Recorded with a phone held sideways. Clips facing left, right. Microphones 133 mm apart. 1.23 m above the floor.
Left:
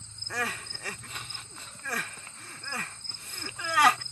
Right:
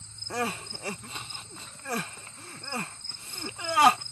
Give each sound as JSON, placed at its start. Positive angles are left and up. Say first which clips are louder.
{"t": 0.3, "sound": "crying", "louder": "right 4 dB", "side_deg": -25}